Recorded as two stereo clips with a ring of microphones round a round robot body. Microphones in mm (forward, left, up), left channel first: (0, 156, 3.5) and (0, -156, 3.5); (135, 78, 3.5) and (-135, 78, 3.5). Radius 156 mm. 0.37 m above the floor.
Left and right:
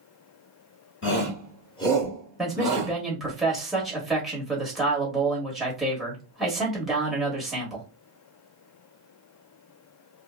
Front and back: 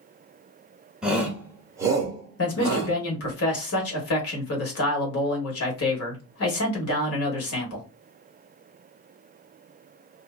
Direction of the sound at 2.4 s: Straight ahead.